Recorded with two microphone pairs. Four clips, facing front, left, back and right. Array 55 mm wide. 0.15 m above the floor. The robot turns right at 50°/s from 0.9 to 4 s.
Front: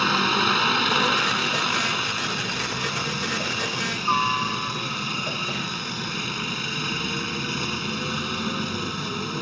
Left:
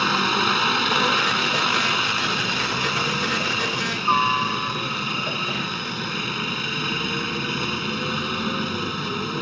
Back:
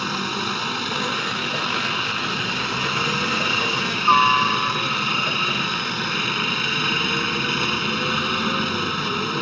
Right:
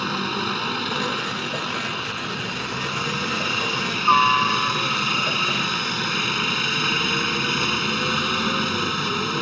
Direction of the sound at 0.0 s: 50° left.